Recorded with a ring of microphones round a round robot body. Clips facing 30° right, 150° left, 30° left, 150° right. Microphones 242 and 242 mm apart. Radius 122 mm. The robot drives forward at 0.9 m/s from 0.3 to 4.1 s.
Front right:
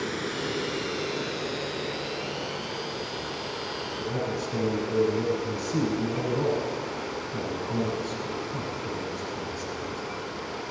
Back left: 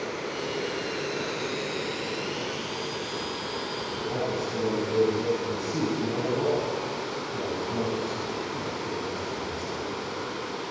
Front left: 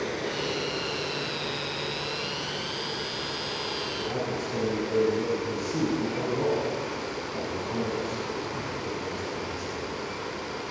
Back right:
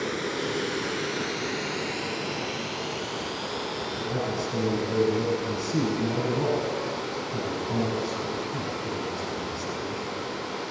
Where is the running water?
80° right, 1.4 m; by 10.7 s 160° right, 3.5 m.